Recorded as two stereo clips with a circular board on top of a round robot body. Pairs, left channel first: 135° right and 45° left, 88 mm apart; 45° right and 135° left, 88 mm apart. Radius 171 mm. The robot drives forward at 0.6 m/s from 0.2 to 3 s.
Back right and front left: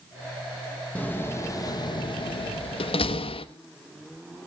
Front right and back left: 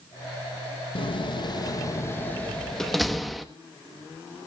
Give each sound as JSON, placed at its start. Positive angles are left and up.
{"t": 0.9, "sound": "a door slam", "azimuth_deg": -60, "distance_m": 0.9}